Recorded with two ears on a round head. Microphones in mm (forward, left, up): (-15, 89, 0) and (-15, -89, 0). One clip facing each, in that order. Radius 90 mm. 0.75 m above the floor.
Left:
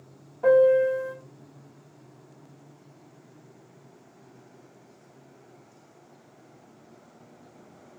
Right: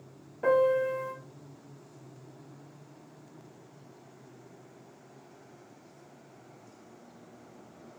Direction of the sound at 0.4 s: 20° right (ahead or behind).